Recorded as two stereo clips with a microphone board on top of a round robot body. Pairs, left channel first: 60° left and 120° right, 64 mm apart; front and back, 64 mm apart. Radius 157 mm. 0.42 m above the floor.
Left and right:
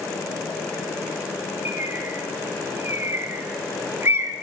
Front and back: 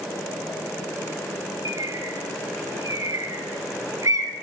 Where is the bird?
165° right, 1.3 m.